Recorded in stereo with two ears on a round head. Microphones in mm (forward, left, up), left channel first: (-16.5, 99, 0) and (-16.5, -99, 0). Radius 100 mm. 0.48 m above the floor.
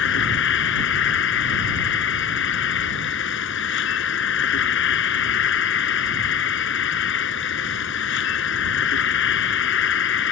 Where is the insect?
55° left (ahead or behind).